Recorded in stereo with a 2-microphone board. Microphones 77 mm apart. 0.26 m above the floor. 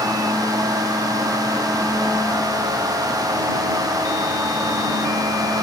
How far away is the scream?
I don't hear a scream.